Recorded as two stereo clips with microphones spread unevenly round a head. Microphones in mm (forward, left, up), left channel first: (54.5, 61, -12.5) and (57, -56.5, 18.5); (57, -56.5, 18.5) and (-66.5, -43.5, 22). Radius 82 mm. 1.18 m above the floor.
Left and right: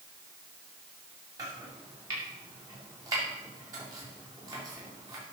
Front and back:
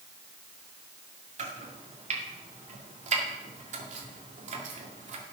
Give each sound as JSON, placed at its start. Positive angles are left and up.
{"t": 1.4, "sound": "chopping", "azimuth_deg": -160, "distance_m": 2.5}